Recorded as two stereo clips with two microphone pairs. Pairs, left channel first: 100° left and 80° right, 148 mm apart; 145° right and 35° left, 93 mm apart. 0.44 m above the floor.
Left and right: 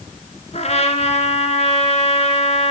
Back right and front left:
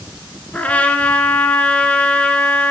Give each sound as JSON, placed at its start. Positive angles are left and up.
{"t": 0.5, "sound": "a trumpet", "azimuth_deg": 140, "distance_m": 1.3}